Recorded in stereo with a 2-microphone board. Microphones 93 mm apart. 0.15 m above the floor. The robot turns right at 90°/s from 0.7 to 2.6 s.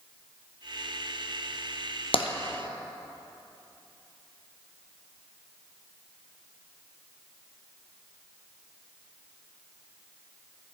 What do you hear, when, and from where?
2.1 s tapping: 65° left (ahead or behind), 0.7 m; by 2.3 s 75° left (ahead or behind), 0.7 m